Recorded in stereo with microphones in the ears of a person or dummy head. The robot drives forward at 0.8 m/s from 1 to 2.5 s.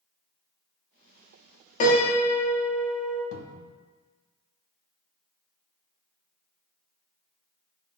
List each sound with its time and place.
1.8 s a piano: 40° left (ahead or behind), 0.7 m; by 3.2 s 25° left (ahead or behind), 1.1 m
3.3 s a cupboard door: 70° left (ahead or behind), 0.5 m